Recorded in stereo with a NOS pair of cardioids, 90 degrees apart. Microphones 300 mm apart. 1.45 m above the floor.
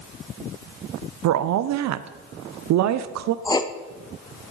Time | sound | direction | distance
1.2 | a woman speaking | 65° right | 0.6 m
3.5 | writing | 15° left | 0.7 m